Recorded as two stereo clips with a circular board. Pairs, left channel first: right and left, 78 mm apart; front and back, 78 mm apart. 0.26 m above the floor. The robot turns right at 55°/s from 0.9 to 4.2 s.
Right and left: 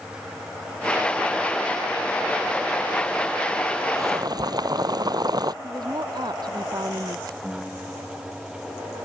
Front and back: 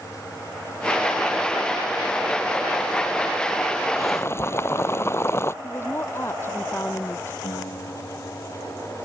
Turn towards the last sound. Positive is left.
turn(degrees=5)